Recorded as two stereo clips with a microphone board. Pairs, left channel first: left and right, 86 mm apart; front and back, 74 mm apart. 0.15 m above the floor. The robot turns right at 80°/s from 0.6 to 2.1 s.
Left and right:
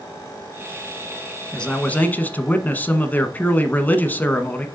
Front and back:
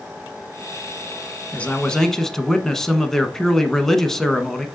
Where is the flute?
I don't hear a flute.